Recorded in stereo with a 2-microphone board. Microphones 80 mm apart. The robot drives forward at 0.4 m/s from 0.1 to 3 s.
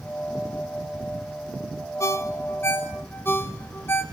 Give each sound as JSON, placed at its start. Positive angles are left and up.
{"t": 2.0, "sound": "a ringtone", "side_deg": 35, "distance_m": 1.1}